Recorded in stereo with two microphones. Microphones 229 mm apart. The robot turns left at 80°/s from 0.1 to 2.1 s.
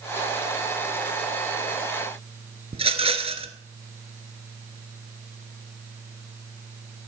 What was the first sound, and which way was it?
A rattle, 25° right (ahead or behind).